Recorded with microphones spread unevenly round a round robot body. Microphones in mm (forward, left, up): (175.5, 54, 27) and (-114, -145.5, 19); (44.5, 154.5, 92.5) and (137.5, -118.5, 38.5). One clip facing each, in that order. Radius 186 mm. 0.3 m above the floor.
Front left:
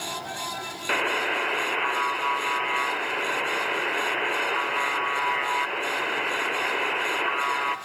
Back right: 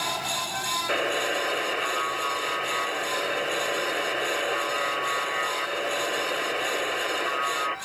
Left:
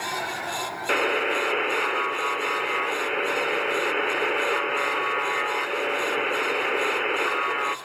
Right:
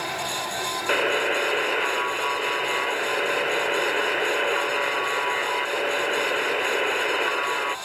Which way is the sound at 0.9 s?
Straight ahead.